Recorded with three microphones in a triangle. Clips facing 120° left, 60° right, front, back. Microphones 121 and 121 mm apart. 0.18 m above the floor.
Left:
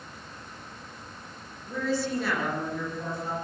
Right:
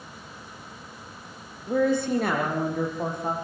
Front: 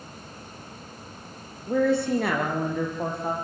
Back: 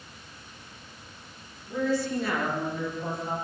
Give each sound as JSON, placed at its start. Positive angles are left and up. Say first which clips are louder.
{"t": 1.7, "sound": "a woman speaking", "louder": "right 6 dB, front 5 dB", "azimuth_deg": -25, "distance_m": 7.0}